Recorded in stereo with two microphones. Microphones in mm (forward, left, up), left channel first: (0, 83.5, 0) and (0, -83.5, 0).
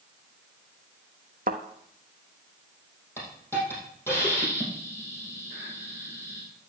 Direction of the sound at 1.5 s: 60° right (ahead or behind).